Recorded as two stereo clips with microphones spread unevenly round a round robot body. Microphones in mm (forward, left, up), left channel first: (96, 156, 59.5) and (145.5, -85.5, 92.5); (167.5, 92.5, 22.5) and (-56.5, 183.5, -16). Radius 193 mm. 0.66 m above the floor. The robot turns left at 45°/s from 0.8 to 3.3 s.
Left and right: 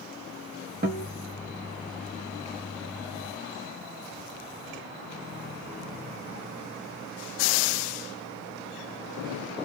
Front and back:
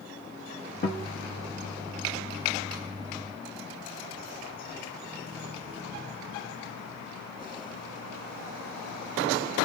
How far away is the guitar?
About 1.2 m.